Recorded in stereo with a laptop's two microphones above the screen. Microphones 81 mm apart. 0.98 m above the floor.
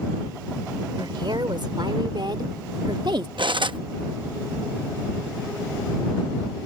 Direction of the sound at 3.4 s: 85° right.